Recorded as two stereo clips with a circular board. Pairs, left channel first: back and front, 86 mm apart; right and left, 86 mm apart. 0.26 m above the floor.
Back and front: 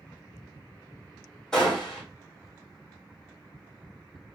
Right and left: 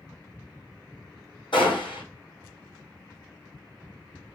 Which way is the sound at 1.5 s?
100° right.